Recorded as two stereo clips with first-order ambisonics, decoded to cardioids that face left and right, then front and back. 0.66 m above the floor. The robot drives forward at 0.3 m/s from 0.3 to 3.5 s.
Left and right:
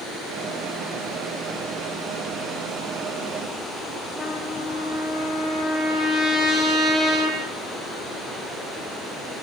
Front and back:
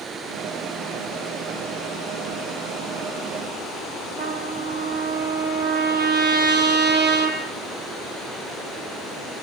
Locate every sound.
4.2 s a trumpet: 165° right, 6.5 m